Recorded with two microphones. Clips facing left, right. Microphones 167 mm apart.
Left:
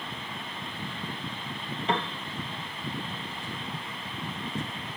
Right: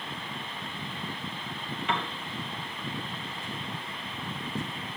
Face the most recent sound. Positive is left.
turn(degrees=35)  # may be behind; listen again after turning